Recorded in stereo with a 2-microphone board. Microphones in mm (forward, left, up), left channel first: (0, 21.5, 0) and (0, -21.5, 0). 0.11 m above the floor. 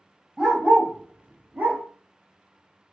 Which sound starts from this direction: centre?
A dog barking, at 0.4 s.